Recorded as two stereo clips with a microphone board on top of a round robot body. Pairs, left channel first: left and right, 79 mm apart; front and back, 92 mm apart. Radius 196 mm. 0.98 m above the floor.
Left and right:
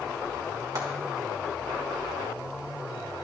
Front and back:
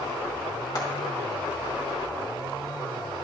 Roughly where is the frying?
Ahead right.